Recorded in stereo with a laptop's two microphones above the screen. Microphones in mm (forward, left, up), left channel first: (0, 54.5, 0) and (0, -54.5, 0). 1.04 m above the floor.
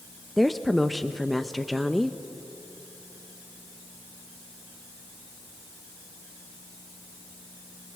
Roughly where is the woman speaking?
Centre.